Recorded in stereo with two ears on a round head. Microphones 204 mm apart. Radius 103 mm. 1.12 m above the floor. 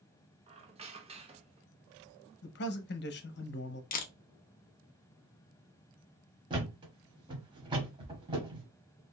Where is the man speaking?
45° left (ahead or behind), 0.6 m.